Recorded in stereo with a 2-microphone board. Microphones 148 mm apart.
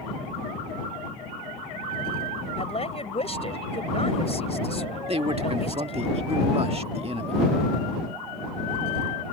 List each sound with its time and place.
2.6 s a woman speaking: 45° left (ahead or behind)
5.1 s a man speaking: 40° right (ahead or behind)